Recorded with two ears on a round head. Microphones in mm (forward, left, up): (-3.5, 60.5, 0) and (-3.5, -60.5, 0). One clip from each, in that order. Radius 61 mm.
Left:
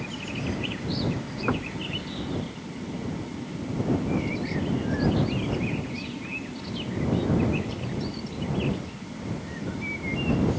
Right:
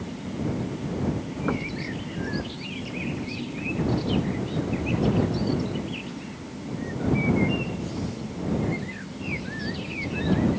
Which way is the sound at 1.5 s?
30° left (ahead or behind).